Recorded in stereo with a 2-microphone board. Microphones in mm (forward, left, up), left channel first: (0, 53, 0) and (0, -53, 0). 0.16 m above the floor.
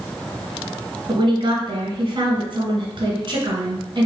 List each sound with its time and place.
1.1 s a woman speaking: 50° right (ahead or behind), 1.6 m